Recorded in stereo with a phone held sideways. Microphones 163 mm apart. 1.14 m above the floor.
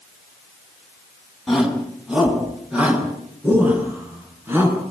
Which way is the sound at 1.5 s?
Centre (ahead or behind).